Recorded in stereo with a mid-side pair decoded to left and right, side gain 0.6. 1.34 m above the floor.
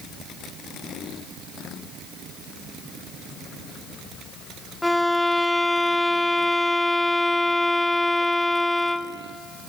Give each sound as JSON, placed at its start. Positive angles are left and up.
{"t": 4.8, "sound": "a violin", "azimuth_deg": 5, "distance_m": 0.6}